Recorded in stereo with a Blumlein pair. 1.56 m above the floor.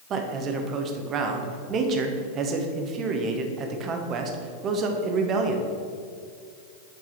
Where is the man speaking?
30° right, 1.2 m.